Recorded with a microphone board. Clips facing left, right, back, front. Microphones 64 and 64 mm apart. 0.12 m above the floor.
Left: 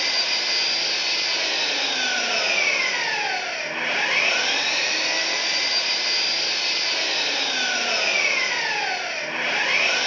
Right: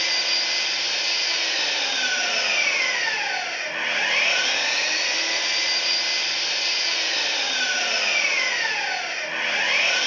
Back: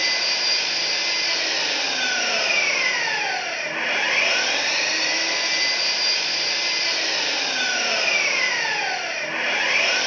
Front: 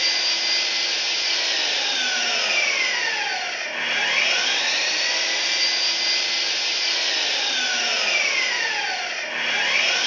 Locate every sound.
0.0 s an engine running: 130° left, 1.8 m